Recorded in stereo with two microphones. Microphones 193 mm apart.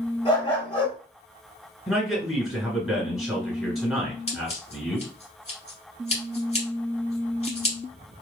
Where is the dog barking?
30° left (ahead or behind), 1.4 m.